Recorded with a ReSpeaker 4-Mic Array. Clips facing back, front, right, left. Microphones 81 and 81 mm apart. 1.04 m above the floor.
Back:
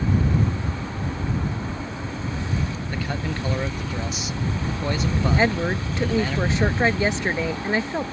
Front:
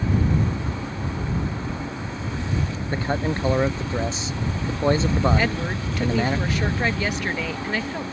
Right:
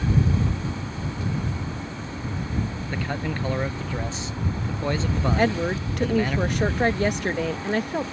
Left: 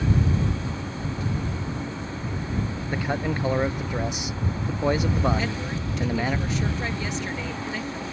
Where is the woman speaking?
115° right.